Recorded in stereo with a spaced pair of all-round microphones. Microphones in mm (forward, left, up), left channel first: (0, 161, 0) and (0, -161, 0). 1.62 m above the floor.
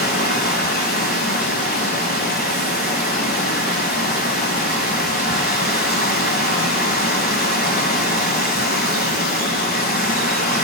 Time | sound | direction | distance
0.0 | running water | 30° left (ahead or behind) | 1.7 m